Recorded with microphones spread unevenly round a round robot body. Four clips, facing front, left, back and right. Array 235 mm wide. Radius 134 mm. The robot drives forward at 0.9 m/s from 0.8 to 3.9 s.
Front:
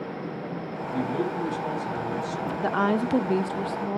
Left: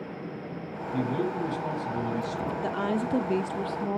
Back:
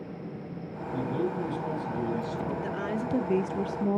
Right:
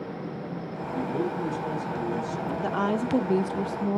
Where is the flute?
I don't hear a flute.